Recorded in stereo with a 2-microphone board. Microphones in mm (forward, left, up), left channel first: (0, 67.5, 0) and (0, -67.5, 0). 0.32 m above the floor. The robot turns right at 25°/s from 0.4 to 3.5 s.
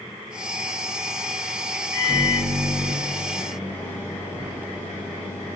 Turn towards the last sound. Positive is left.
turn(degrees=15)